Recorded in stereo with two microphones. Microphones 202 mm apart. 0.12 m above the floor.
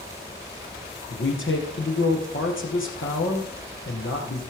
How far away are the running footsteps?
No running footsteps in this recording.